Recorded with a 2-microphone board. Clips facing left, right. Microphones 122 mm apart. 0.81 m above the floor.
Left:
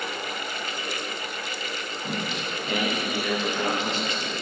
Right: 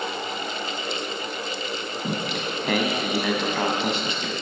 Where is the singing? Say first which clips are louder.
Right 3 dB; 80° right, 2 m.